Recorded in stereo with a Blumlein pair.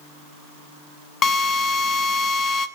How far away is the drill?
About 1.4 m.